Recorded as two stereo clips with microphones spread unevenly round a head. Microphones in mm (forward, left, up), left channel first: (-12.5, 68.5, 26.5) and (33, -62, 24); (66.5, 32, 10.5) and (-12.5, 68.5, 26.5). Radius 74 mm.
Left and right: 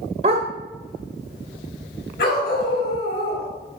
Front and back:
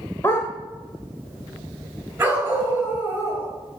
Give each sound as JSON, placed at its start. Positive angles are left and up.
{"t": 0.2, "sound": "a dog barking", "azimuth_deg": -100, "distance_m": 1.1}
{"t": 2.2, "sound": "a dog barking", "azimuth_deg": 90, "distance_m": 4.5}